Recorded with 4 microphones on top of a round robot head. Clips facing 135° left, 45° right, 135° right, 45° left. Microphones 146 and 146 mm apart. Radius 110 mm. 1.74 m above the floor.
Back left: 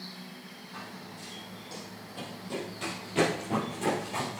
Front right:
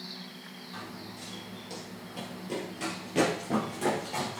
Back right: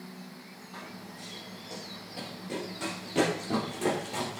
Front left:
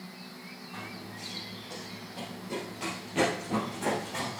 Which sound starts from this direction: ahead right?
Running footsteps, at 0.7 s.